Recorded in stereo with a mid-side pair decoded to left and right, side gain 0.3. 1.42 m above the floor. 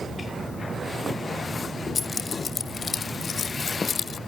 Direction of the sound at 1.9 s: 55° left.